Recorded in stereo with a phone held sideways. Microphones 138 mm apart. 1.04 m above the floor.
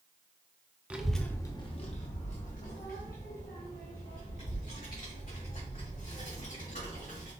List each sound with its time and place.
0.9 s a child speaking: 10° right (ahead or behind), 0.6 m; by 7.3 s 70° left (ahead or behind), 4 m